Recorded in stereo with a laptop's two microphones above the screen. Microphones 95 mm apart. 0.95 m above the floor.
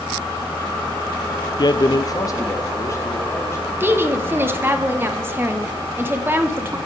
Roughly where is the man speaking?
Left.